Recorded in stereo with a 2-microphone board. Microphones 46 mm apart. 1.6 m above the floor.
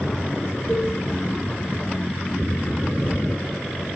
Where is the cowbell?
30° right (ahead or behind), 9.5 m.